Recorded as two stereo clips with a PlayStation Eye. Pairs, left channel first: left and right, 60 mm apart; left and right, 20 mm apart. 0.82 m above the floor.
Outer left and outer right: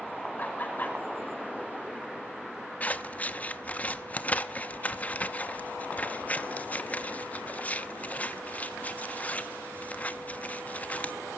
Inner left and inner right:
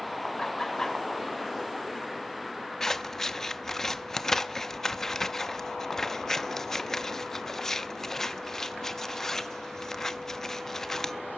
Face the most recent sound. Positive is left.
turn(degrees=25)  # may be behind; listen again after turning